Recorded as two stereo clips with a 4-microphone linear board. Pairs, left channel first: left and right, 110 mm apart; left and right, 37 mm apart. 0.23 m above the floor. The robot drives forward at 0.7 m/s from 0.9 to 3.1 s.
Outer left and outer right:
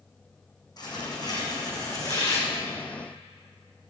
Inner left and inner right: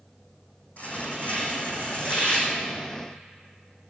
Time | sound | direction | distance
0.8 | tearing paper | 40° left (ahead or behind) | 3.5 m